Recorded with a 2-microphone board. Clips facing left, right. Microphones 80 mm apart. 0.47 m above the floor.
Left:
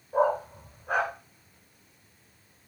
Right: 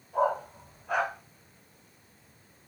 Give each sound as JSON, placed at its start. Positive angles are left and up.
{"t": 0.1, "sound": "a dog barking", "side_deg": 45, "distance_m": 1.7}